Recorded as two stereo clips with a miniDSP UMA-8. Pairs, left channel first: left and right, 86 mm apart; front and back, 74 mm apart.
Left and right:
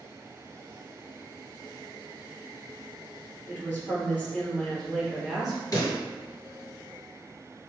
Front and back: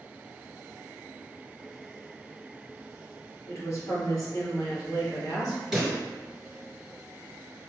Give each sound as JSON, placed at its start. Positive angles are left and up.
{"t": 3.5, "sound": "a woman speaking", "azimuth_deg": 30, "distance_m": 2.0}
{"t": 5.7, "sound": "a pop", "azimuth_deg": 90, "distance_m": 1.8}